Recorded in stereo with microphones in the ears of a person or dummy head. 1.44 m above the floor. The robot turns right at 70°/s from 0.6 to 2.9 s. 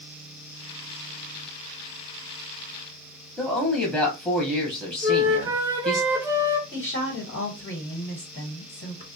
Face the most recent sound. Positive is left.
turn(degrees=50)  # may be behind; listen again after turning